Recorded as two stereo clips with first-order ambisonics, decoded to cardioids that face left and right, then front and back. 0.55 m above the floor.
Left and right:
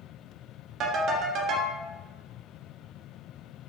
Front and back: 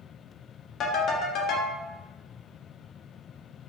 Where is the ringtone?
40° right, 0.6 m.